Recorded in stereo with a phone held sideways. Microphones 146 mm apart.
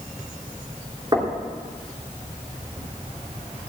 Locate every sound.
1.1 s knocking: 30° right (ahead or behind), 2 m